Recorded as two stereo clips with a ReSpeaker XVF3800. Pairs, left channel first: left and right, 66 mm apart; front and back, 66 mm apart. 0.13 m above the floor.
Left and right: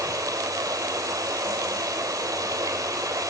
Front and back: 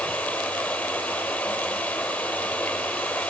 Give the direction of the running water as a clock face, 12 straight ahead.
2 o'clock.